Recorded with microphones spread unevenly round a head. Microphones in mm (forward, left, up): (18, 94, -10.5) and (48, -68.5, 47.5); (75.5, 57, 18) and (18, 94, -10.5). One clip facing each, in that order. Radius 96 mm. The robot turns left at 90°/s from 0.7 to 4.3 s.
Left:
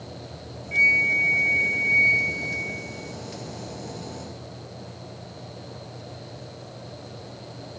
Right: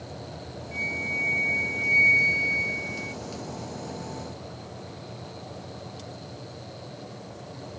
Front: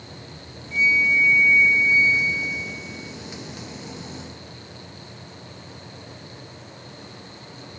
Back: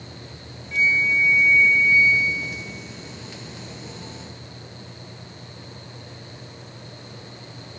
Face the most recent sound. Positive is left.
turn(degrees=165)